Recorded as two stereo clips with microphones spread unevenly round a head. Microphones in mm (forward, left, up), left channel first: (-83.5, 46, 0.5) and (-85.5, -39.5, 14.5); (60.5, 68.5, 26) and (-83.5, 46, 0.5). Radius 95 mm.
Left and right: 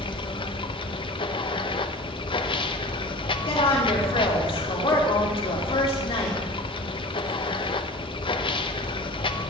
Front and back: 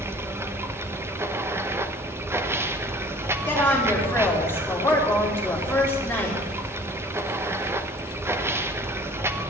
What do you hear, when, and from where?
0.0 s running water: 115° left, 0.9 m
3.5 s a woman speaking: 85° left, 3.5 m